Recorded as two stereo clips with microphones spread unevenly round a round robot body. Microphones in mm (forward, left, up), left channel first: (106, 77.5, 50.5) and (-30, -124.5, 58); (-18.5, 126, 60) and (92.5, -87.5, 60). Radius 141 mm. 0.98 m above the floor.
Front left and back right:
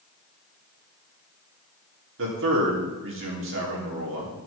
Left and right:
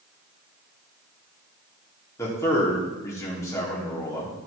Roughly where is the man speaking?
Behind.